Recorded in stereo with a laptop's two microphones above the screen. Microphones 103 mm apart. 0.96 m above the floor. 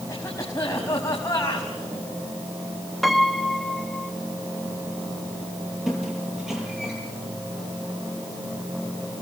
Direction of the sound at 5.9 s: 5° right (ahead or behind).